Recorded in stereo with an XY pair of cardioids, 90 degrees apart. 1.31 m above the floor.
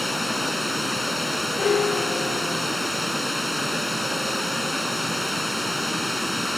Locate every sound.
0.0 s running water: straight ahead
1.6 s a piano: 45° left